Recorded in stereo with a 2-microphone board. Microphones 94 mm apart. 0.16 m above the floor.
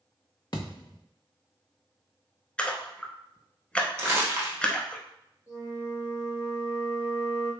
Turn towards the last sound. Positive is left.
turn(degrees=-40)  # may be behind; listen again after turning